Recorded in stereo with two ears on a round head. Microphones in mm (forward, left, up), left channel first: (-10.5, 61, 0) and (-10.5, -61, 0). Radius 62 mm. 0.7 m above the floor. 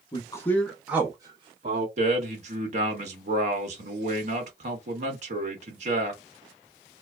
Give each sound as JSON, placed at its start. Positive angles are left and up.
{"t": 0.1, "sound": "a man speaking", "side_deg": 30, "distance_m": 0.7}
{"t": 2.0, "sound": "a man speaking", "side_deg": -55, "distance_m": 1.1}